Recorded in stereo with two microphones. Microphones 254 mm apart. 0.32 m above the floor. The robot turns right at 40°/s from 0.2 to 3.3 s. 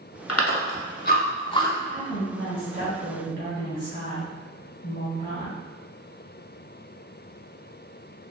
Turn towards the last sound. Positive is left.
turn(degrees=130)